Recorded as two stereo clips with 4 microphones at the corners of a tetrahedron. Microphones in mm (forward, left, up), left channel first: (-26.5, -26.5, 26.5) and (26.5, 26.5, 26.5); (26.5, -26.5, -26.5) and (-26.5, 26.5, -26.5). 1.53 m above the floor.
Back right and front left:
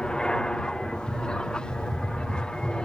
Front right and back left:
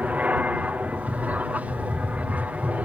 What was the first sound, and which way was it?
An aircraft, 165° left.